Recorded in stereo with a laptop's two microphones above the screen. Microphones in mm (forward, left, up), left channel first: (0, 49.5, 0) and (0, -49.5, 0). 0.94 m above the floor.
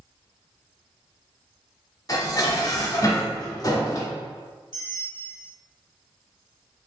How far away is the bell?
About 1.0 m.